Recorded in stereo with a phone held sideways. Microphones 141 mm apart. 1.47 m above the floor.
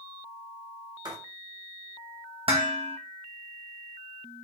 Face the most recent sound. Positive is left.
turn(degrees=-45)  # may be behind; listen again after turning